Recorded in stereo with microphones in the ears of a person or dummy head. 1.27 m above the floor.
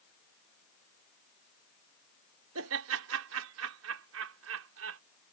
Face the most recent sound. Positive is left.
turn(degrees=-70)  # may be behind; listen again after turning